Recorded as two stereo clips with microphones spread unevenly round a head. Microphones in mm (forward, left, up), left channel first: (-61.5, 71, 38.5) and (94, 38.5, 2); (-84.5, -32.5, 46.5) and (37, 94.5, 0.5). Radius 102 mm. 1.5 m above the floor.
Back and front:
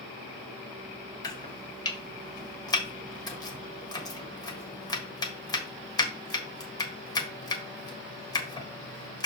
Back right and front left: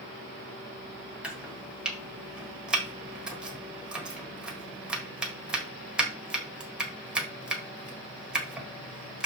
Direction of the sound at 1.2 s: 150° left.